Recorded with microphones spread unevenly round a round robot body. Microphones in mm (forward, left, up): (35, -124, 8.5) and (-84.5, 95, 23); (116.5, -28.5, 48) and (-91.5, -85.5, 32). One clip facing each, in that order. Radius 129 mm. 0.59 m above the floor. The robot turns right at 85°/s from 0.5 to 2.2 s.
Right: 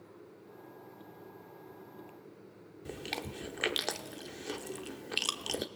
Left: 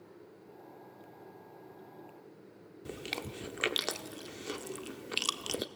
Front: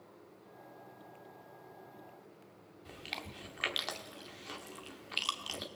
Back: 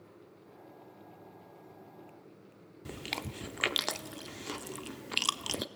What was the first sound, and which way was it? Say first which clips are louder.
Chewing: even, back 7 dB; 155° right.